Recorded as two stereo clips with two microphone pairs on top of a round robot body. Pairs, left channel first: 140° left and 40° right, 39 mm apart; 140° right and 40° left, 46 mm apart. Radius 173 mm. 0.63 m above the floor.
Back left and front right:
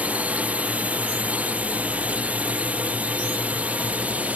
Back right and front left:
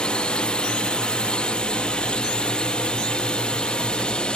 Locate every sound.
0.0 s a drone: 60° right